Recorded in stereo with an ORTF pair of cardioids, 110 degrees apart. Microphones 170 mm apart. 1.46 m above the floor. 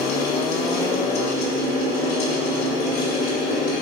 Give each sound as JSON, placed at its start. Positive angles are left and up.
{"t": 0.0, "sound": "a fan", "azimuth_deg": 70, "distance_m": 4.5}